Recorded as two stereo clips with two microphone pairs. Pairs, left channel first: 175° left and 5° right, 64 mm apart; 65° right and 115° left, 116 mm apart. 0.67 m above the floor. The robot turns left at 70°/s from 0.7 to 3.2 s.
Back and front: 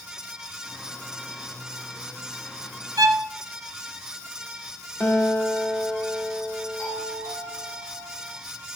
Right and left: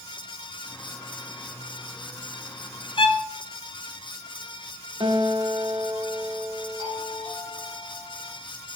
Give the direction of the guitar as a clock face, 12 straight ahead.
7 o'clock.